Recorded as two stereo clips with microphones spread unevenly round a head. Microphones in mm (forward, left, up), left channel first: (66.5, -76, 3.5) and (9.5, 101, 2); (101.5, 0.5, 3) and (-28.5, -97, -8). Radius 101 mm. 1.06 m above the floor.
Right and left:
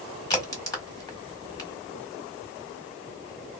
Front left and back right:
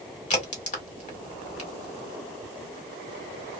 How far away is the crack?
About 1.4 m.